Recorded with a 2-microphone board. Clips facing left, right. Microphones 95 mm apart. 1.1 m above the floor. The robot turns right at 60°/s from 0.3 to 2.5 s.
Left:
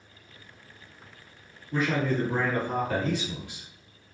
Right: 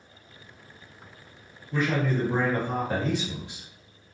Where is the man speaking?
160° left, 1.4 m; by 3.7 s 155° right, 1.4 m.